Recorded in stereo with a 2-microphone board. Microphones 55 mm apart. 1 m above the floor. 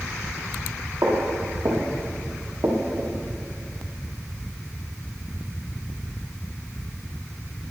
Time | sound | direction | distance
1.0 | footsteps | 75° right (ahead or behind) | 6 m